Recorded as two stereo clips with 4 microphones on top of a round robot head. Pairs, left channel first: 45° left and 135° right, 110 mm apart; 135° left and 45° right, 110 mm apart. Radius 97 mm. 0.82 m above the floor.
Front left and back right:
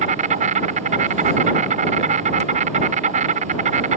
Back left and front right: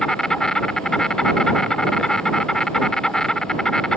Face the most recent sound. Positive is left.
turn(degrees=-140)